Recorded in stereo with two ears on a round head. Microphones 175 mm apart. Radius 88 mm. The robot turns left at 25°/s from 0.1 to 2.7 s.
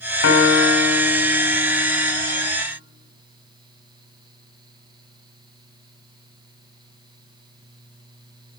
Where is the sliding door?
No sliding door in this recording.